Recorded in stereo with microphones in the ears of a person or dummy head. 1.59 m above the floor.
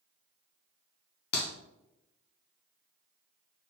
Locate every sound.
1.3 s a clap: 60° left (ahead or behind), 0.8 m